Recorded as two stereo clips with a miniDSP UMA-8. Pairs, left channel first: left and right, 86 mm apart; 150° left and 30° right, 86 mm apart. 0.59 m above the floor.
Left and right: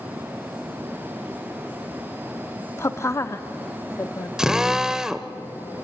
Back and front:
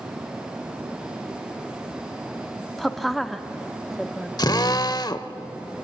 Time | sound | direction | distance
2.8 | a woman speaking | 65° left | 0.9 m
4.4 | a drill | 175° right | 0.8 m